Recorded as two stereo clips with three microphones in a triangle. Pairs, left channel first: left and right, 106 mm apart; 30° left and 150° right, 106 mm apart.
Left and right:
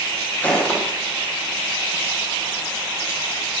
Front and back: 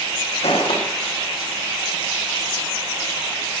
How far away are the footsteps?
About 7 m.